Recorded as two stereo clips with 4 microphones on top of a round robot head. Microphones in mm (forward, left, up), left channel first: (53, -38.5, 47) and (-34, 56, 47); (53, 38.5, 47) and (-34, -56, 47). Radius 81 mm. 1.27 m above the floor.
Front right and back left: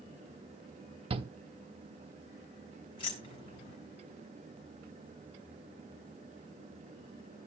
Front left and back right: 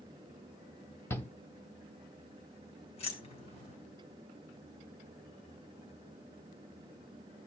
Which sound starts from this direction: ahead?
Keys jangling, at 3.0 s.